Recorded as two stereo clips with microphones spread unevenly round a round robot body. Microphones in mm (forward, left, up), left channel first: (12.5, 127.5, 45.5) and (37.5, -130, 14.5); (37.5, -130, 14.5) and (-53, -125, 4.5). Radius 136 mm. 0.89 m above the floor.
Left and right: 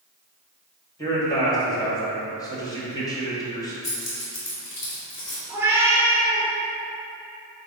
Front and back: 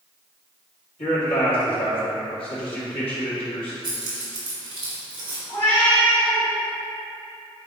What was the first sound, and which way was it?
A man speaking, 15° left.